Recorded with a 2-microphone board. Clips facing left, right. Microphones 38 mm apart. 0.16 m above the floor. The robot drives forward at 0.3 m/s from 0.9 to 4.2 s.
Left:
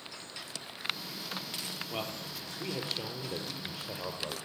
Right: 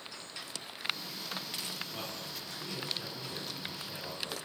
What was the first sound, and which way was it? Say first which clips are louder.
A man speaking: left 3 dB; 50° left (ahead or behind).